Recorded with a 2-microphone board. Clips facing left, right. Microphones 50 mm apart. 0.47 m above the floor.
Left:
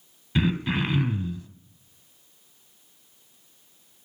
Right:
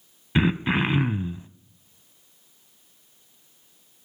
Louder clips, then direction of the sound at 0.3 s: Right 3 dB; 30° right (ahead or behind).